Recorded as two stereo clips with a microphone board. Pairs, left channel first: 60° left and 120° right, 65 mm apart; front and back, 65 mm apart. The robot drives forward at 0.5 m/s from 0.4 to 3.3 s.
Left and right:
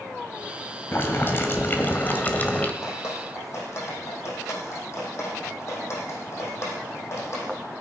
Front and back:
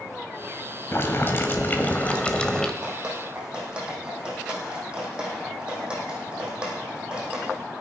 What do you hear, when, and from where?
0.9 s boiling: 25° left, 1.7 m; by 2.7 s 65° left, 1.4 m
2.8 s dripping: 100° left, 5.5 m; by 7.5 s 105° left, 5.5 m